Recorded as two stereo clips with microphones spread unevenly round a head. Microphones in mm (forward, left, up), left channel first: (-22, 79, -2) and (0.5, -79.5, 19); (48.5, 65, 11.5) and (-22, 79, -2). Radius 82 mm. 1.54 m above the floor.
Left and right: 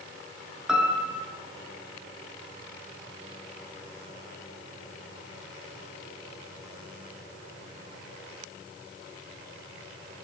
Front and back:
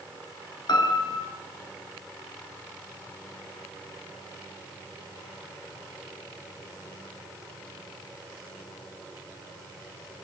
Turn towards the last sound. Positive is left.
turn(degrees=0)